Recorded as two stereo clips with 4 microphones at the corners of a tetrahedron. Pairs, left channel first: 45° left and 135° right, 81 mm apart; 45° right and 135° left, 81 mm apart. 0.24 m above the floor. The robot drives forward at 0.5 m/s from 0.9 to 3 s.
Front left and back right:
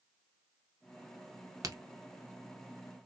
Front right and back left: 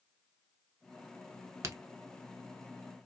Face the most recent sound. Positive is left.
turn(degrees=180)